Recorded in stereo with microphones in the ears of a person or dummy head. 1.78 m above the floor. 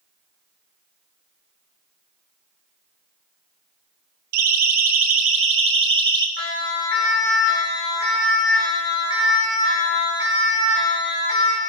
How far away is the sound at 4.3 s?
About 2.5 m.